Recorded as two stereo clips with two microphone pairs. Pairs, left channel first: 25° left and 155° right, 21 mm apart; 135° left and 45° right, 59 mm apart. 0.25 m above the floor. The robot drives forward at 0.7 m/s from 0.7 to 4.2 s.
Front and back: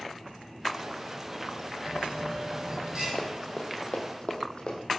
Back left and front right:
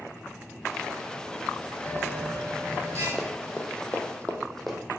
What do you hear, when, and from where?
1.9 s a bell: 175° left, 0.6 m; by 3.1 s straight behind, 1.5 m
3.2 s running footsteps: 55° left, 0.6 m; by 4.8 s 45° left, 0.8 m